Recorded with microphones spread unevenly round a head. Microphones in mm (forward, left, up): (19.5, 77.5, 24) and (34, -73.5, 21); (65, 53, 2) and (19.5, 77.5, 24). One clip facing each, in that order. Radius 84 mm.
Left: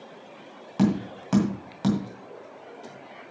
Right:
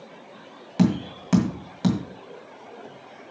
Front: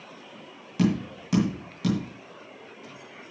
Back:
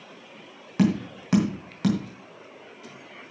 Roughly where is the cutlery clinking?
I don't hear cutlery clinking.